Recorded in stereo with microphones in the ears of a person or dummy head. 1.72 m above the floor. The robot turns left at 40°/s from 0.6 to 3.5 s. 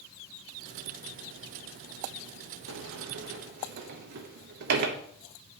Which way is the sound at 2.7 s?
85° right.